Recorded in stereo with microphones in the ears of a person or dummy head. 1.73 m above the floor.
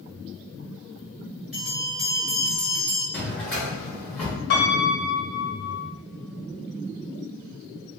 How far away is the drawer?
About 1.3 m.